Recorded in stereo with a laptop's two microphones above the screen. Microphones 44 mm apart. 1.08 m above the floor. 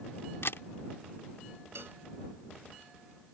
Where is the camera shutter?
70° left (ahead or behind).